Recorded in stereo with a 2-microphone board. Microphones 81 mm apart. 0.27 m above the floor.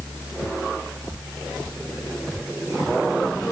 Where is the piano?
No piano in this recording.